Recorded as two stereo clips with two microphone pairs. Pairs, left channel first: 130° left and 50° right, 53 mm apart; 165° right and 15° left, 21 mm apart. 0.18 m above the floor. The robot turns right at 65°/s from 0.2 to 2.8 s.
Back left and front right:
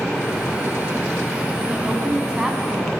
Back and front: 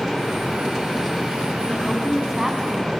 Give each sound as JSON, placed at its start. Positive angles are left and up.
{"t": 1.7, "sound": "a woman speaking", "azimuth_deg": -40, "distance_m": 1.6}